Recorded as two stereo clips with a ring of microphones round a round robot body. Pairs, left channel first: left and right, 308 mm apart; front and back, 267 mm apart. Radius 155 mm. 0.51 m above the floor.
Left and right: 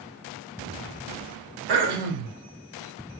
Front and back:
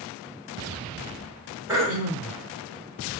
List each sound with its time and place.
1.7 s throat clearing: 100° right, 1.0 m